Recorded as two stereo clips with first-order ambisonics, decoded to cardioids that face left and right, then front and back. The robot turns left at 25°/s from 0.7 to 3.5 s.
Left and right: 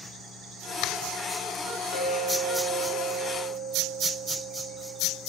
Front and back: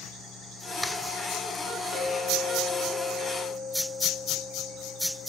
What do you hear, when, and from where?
1.9 s a clink: 60° left, 4.5 m; by 5.2 s 20° left, 4.5 m